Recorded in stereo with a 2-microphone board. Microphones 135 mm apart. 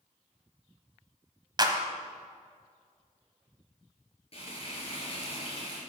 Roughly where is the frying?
Left.